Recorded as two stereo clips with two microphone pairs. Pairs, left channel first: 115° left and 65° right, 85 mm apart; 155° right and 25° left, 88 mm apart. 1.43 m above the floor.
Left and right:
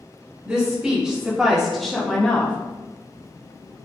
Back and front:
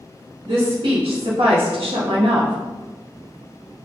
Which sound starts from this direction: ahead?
A woman speaking, at 0.5 s.